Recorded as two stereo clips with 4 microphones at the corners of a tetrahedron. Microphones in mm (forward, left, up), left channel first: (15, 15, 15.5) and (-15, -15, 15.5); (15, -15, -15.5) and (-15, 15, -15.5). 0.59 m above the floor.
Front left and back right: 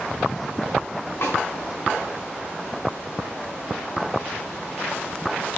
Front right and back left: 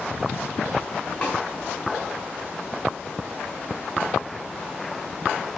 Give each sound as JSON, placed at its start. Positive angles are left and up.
{"t": 1.2, "sound": "a snare drum", "azimuth_deg": 10, "distance_m": 3.5}